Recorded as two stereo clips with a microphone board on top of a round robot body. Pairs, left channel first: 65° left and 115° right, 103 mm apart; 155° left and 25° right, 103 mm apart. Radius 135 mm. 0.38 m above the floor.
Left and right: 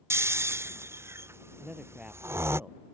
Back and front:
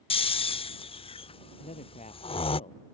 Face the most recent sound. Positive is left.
turn(degrees=165)